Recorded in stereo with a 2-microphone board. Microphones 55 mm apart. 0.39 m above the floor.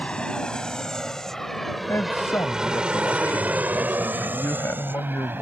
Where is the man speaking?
60° left (ahead or behind).